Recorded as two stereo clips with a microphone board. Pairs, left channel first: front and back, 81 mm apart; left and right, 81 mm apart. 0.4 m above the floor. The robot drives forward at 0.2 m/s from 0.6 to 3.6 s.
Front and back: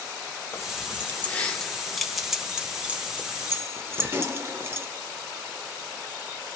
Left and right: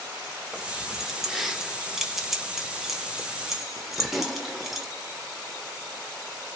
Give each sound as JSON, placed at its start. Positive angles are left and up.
{"t": 0.5, "sound": "keys jangling", "azimuth_deg": -5, "distance_m": 0.6}